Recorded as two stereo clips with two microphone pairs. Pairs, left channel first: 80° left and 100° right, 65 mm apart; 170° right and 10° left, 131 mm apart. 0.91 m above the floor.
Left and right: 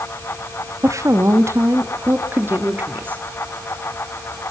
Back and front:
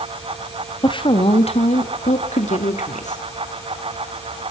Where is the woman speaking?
120° right, 1.5 m; by 3.2 s 160° right, 2.5 m.